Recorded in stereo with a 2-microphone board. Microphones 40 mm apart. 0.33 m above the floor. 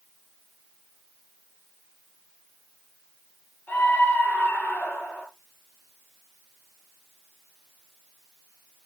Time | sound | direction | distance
3.7 | a scream | 45° left (ahead or behind) | 5.5 m